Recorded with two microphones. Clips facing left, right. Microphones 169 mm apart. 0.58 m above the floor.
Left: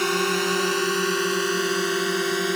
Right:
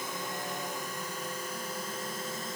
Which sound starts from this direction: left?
A drone, at 0.0 s.